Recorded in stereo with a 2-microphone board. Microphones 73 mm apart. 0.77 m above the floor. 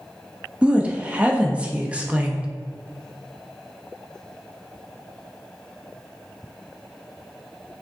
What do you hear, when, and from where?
0.6 s a woman speaking: 15° right (ahead or behind), 0.6 m